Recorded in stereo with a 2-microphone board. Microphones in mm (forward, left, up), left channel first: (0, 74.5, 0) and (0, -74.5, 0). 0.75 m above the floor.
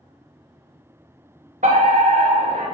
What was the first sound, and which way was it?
A fire alarm, 60° right (ahead or behind).